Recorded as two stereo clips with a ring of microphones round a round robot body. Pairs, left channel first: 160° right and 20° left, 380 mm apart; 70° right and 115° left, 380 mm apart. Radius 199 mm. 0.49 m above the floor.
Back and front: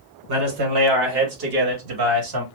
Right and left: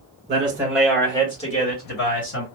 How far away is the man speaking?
About 1.8 m.